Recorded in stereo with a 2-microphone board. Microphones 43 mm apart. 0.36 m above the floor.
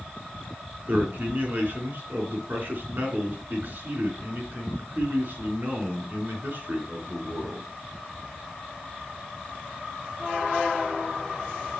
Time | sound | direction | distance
0.9 | a man speaking | 50° right (ahead or behind) | 4 m